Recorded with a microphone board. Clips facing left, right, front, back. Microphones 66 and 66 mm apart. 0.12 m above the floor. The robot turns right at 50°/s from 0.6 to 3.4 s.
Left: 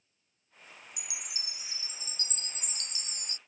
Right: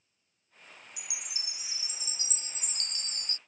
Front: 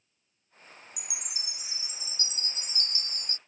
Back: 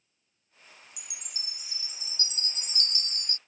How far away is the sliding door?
No sliding door in this recording.